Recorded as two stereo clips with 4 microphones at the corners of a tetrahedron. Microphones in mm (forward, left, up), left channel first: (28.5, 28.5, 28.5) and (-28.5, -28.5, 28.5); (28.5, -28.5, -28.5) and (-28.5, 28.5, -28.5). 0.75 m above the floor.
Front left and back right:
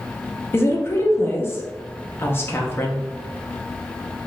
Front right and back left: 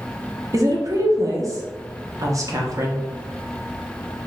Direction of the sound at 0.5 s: 100° left.